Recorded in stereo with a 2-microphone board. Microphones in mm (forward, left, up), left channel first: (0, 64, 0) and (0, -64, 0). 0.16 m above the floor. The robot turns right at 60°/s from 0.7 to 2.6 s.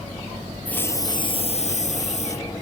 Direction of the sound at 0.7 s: 15° left.